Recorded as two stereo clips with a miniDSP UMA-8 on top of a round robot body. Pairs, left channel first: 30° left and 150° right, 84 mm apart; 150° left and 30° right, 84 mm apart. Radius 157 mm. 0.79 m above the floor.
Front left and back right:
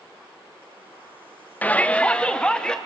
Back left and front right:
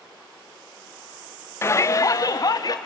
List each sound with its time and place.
1.6 s a shout: 100° left, 0.8 m; by 2.8 s 110° left, 1.7 m